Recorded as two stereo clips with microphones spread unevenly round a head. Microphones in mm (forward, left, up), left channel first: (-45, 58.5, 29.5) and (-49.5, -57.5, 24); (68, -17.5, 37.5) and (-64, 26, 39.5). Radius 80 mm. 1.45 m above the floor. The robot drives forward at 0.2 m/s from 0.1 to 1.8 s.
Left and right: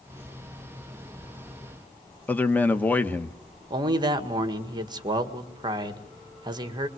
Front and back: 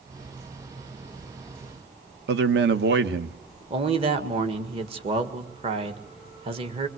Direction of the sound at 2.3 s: 165° left.